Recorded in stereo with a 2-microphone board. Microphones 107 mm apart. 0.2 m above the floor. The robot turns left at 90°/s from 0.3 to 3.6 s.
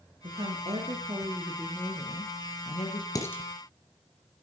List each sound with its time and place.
0.2 s a woman speaking: 55° right, 3 m; by 3.0 s 55° left, 3 m
3.1 s dishes clattering: 35° left (ahead or behind), 2.5 m; by 3.4 s 10° left (ahead or behind), 2.5 m